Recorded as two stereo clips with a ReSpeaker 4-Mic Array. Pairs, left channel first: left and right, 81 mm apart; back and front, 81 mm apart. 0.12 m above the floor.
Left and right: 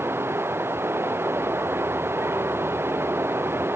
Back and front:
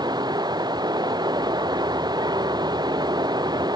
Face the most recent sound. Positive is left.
turn(degrees=-30)